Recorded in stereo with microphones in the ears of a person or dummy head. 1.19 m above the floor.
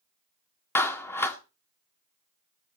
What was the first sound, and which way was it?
A clap, 15° left (ahead or behind).